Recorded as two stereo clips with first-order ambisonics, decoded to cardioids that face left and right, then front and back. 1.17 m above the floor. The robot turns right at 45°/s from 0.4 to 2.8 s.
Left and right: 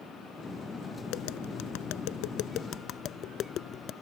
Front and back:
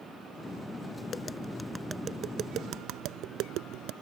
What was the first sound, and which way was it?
Tapping, 65° left.